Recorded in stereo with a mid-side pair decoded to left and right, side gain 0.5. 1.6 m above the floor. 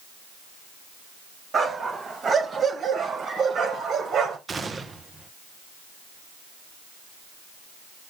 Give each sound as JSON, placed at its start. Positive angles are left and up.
{"t": 1.5, "sound": "a dog barking", "azimuth_deg": -40, "distance_m": 4.0}
{"t": 4.5, "sound": "a gunshot", "azimuth_deg": -35, "distance_m": 1.3}